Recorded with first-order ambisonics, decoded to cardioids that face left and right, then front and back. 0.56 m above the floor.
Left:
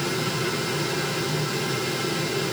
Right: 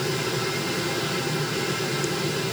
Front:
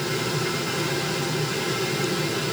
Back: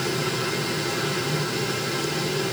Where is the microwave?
I don't hear a microwave.